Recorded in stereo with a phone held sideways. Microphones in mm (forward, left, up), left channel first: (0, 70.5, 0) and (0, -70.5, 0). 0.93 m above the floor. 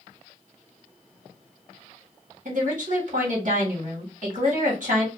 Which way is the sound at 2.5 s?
65° right (ahead or behind).